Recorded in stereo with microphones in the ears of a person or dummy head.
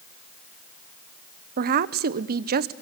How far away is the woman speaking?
About 1.0 m.